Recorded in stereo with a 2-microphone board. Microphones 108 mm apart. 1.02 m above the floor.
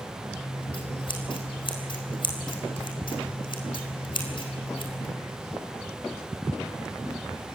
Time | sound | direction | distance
0.3 | scissors | 50° left (ahead or behind) | 4 m